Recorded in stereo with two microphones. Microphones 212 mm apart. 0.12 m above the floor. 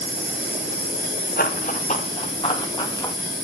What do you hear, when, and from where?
0.0 s an insect: 35° left (ahead or behind), 4.5 m
1.4 s running footsteps: 45° left (ahead or behind), 3 m; by 3.1 s 15° left (ahead or behind), 3.5 m